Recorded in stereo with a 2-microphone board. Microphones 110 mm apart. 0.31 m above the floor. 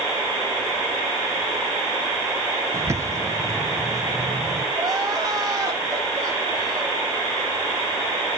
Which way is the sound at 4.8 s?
30° right (ahead or behind).